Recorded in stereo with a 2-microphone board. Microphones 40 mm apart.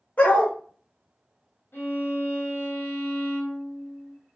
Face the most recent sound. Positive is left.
turn(degrees=70)  # may be behind; listen again after turning